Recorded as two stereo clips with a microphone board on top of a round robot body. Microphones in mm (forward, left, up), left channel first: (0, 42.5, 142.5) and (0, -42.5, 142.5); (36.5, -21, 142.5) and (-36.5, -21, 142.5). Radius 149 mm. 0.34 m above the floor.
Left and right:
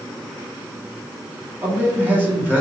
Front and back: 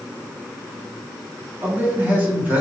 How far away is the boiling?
No boiling in this recording.